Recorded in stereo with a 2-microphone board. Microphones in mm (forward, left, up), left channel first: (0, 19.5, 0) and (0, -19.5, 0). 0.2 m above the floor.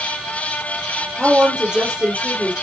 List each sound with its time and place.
1.2 s a woman speaking: 20° right (ahead or behind), 4.5 m